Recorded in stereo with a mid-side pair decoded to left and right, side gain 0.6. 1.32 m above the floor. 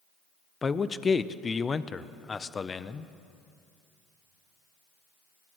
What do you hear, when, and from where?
0.6 s a man speaking: 25° left, 0.6 m